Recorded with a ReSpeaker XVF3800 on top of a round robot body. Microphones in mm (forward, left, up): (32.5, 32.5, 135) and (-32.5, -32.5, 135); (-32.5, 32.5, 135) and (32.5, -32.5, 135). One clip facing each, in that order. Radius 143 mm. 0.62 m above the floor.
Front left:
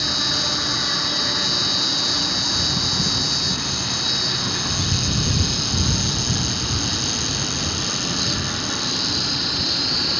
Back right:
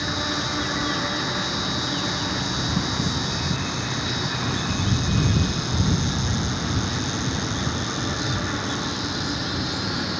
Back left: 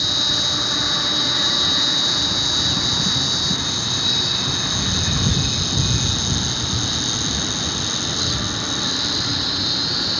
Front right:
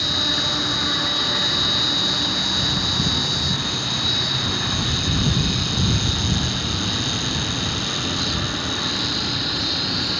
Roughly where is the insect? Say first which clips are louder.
Back right 1 dB, front right 1 dB; ahead left.